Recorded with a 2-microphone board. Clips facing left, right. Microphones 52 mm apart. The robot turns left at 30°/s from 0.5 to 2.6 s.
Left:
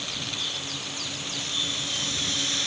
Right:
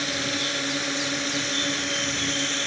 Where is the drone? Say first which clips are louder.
Right 7 dB; 85° right; by 2.7 s 145° right.